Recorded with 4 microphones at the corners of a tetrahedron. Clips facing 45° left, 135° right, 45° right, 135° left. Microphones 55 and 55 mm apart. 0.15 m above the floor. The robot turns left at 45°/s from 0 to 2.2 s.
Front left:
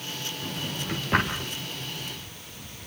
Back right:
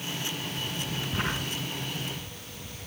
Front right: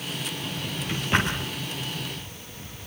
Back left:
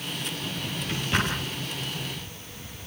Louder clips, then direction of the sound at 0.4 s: Front left 1 dB, even; 55° left.